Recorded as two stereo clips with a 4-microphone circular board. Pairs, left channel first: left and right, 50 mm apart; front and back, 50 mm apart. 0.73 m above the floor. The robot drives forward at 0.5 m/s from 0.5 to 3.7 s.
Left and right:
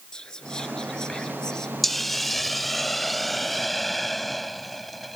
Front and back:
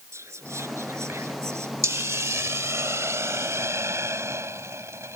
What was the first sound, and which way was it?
Whispering, 165° left.